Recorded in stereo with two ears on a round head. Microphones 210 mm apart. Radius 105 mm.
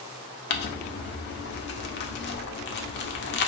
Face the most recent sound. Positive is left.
turn(degrees=50)  # may be behind; listen again after turning